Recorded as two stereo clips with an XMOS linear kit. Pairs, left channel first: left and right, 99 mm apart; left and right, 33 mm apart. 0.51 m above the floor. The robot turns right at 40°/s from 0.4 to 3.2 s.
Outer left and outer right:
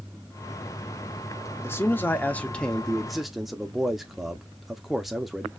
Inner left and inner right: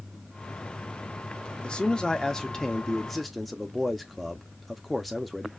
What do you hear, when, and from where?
1.6 s a man speaking: 25° left (ahead or behind), 0.7 m; by 5.5 s centre (ahead or behind), 0.7 m